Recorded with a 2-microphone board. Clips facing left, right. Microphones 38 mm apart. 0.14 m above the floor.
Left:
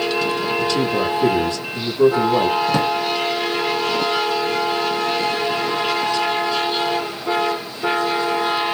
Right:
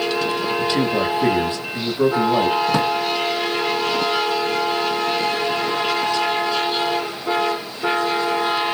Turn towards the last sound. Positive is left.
turn(degrees=-5)  # may be behind; listen again after turning